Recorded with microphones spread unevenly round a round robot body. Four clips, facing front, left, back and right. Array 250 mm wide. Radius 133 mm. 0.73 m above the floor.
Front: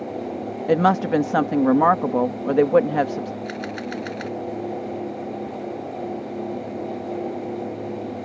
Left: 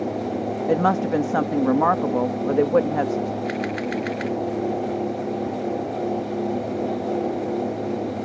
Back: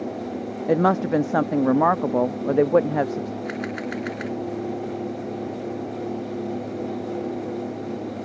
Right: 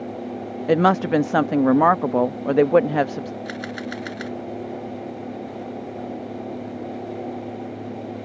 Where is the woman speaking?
5° right.